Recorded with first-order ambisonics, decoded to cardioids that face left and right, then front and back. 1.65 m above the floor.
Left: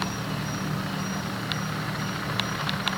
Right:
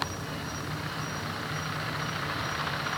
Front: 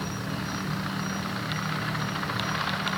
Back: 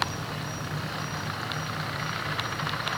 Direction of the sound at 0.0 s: 60° left.